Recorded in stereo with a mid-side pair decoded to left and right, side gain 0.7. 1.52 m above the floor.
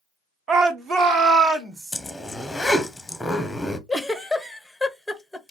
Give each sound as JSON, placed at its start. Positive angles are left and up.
{"t": 0.5, "sound": "a shout", "azimuth_deg": -45, "distance_m": 1.0}
{"t": 1.9, "sound": "a zipper", "azimuth_deg": 5, "distance_m": 0.9}
{"t": 3.9, "sound": "a giggle", "azimuth_deg": 5, "distance_m": 0.7}